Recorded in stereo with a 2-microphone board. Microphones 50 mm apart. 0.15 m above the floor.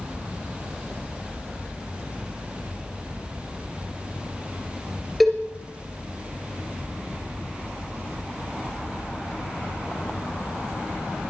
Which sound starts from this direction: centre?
A cowbell, at 5.2 s.